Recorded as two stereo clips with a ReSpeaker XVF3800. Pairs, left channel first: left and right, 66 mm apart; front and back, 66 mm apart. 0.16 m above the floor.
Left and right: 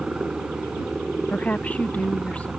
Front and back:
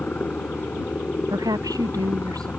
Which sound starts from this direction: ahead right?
A helicopter, at 0.0 s.